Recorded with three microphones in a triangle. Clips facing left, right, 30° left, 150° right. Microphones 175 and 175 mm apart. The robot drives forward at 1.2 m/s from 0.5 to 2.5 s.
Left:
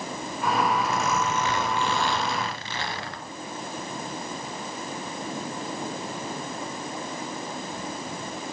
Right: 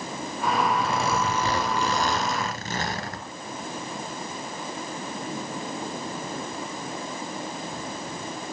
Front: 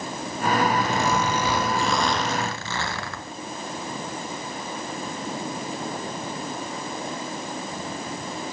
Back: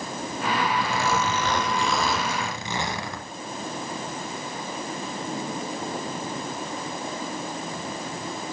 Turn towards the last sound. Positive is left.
turn(degrees=-85)